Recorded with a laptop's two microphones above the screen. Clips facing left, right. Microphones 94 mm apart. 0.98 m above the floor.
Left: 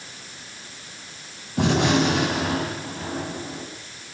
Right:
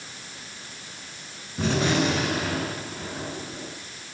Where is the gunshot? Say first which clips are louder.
Left 4 dB; 75° left (ahead or behind), 9 m.